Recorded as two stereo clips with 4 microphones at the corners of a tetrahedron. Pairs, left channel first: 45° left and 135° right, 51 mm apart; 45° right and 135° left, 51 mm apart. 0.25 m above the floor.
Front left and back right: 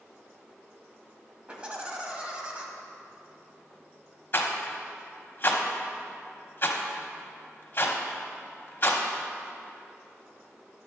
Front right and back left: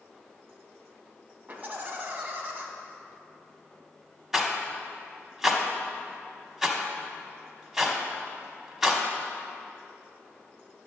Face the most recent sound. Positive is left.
turn(degrees=60)